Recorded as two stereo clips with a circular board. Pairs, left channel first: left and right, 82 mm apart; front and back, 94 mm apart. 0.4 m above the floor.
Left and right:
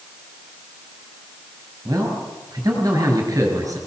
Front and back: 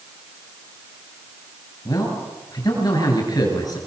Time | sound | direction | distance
1.9 | a man speaking | 45° right | 7 m